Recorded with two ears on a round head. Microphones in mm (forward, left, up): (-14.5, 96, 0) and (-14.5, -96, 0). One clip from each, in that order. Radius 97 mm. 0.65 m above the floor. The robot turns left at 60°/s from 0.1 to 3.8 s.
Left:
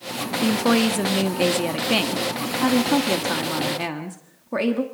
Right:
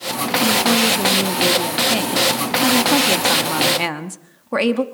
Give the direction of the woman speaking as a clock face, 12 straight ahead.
8 o'clock.